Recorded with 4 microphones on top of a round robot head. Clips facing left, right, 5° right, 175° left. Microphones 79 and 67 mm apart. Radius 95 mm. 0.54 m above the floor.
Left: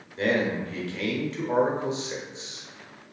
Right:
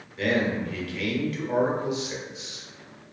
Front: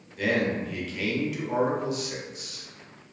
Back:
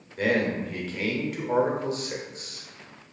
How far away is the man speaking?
About 0.9 m.